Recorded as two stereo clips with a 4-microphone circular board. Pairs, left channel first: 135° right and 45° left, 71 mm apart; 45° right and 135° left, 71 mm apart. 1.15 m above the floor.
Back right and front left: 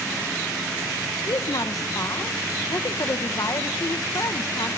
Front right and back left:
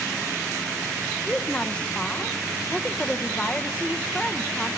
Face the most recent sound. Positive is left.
turn(degrees=-115)